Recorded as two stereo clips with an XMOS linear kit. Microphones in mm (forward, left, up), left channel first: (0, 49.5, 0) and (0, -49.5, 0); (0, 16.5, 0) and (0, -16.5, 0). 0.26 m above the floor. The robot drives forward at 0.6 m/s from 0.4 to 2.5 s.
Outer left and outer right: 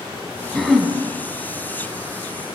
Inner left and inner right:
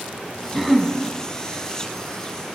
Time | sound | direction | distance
0.5 | throat clearing | centre (ahead or behind) | 0.9 m